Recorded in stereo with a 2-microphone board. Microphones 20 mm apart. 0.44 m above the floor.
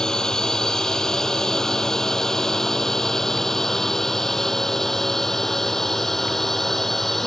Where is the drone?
30° left (ahead or behind); by 7.3 s 15° left (ahead or behind).